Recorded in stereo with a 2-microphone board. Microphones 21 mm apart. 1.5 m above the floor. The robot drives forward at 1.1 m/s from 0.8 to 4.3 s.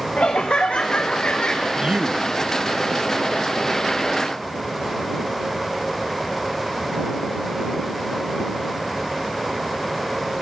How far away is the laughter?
About 1.0 m.